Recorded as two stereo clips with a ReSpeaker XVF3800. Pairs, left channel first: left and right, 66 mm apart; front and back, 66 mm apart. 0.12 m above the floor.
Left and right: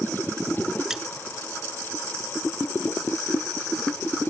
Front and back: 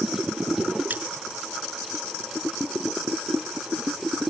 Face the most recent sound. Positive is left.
turn(degrees=-165)